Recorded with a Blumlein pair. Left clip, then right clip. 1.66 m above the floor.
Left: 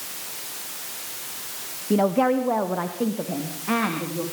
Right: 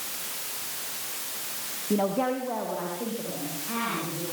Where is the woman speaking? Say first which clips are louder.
Left 6 dB; 15° left, 1.1 m; by 4.2 s 35° left, 4 m.